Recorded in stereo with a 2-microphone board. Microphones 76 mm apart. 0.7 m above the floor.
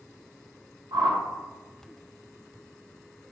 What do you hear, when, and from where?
0.9 s a whoosh: 65° right (ahead or behind), 0.6 m